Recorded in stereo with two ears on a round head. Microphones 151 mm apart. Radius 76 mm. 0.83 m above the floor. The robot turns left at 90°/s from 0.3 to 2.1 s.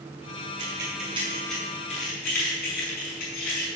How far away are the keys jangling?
About 6 m.